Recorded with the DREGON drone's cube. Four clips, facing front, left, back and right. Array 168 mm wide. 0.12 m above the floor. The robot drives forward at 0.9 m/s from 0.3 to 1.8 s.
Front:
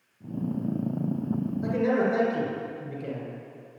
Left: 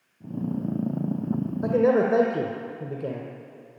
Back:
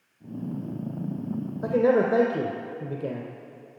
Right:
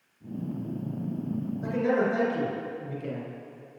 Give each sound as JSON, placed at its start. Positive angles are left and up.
{"t": 1.6, "sound": "a man speaking", "azimuth_deg": 125, "distance_m": 1.8}